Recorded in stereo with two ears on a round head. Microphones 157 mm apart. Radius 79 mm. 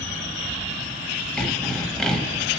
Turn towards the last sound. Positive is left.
turn(degrees=5)  # may be behind; listen again after turning